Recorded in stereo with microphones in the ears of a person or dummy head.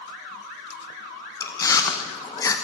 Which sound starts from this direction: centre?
Chewing, at 1.4 s.